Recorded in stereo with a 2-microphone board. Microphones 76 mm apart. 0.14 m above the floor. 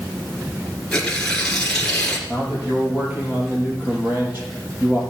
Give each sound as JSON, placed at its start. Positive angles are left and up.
{"t": 0.9, "sound": "tearing paper", "side_deg": 10, "distance_m": 1.9}
{"t": 2.3, "sound": "a man speaking", "side_deg": -30, "distance_m": 4.0}